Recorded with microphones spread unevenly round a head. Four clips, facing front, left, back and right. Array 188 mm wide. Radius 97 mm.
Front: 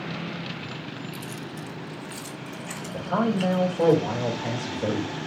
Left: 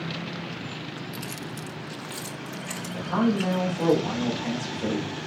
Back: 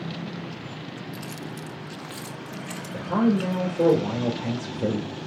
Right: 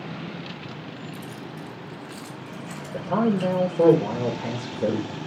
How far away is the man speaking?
About 3 m.